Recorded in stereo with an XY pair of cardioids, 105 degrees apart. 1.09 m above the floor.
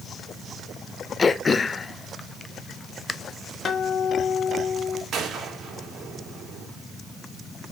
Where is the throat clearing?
35° left, 0.6 m.